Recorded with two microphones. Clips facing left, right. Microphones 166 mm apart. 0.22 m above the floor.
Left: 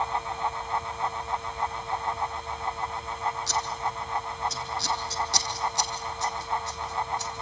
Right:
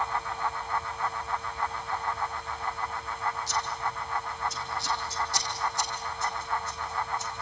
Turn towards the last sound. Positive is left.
turn(degrees=75)  # may be behind; listen again after turning